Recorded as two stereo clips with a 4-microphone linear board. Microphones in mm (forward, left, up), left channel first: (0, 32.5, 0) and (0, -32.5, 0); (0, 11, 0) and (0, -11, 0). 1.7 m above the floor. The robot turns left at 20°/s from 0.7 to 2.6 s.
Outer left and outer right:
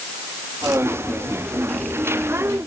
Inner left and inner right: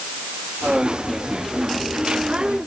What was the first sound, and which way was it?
Only background noise.